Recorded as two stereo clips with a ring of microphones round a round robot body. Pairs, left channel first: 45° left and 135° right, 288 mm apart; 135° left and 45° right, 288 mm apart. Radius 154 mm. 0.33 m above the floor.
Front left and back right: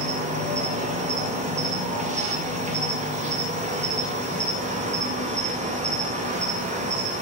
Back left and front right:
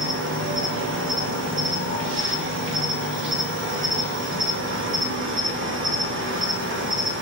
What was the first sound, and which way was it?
An insect, 75° right.